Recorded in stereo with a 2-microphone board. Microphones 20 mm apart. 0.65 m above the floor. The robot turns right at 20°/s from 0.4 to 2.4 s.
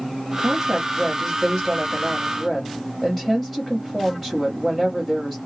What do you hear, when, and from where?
0.4 s a woman speaking: 55° right, 1.1 m; by 5.4 s 15° right, 1.1 m